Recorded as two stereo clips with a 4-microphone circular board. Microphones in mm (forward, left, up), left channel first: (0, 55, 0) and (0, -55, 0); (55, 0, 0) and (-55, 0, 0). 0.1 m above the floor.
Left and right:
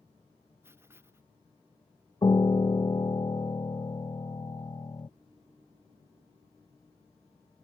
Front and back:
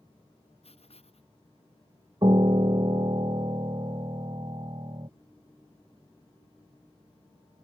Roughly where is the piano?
Behind left.